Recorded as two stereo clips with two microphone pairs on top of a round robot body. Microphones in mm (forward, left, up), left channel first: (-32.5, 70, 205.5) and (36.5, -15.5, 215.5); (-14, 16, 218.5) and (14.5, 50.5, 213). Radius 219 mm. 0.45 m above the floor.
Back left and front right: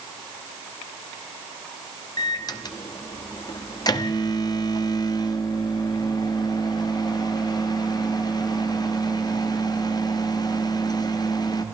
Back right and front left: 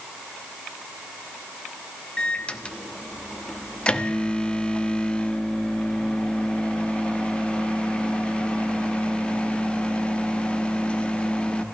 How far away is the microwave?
About 1.4 m.